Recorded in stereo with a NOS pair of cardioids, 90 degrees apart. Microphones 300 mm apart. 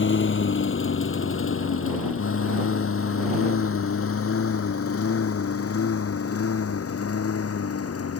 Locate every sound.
0.0 s a lawn mower: 40° left; by 8.2 s 50° left